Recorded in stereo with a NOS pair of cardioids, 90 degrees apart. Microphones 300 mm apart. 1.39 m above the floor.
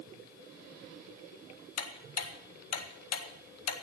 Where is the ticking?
55° left, 1.8 m.